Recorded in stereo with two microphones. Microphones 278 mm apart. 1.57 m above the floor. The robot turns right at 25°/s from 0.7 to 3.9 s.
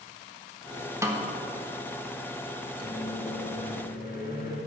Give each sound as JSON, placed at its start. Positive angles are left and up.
{"t": 1.0, "sound": "a snare drum", "side_deg": -10, "distance_m": 1.2}
{"t": 2.8, "sound": "a microwave", "side_deg": 60, "distance_m": 2.5}